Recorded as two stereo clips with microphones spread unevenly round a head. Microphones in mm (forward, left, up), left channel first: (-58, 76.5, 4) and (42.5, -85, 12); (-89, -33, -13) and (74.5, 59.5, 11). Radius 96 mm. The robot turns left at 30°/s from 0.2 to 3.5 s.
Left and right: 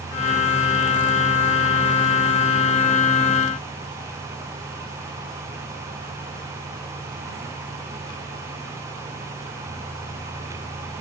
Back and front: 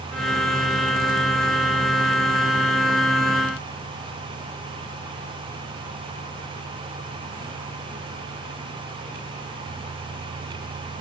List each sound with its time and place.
Only background noise.